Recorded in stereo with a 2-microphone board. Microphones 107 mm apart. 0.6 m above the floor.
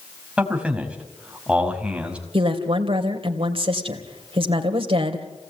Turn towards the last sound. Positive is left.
turn(degrees=-60)  # may be behind; listen again after turning